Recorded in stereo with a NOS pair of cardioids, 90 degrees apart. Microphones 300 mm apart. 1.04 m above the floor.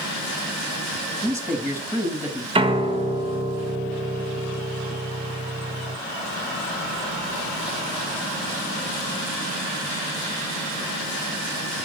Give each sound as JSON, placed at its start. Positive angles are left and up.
{"t": 1.2, "sound": "a man speaking", "azimuth_deg": -5, "distance_m": 2.5}
{"t": 2.5, "sound": "a piano", "azimuth_deg": -20, "distance_m": 1.0}